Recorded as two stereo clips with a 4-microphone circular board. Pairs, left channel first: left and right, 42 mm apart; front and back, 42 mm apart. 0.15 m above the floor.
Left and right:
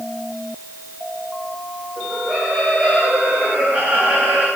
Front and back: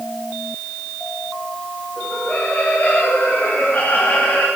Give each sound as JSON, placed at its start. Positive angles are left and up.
{"t": 2.0, "sound": "laughter", "azimuth_deg": -50, "distance_m": 7.0}